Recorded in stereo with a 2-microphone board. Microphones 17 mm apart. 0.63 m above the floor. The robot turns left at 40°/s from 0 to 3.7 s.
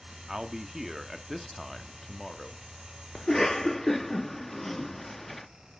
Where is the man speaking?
125° right, 1.2 m; by 2.6 s 140° left, 1.2 m.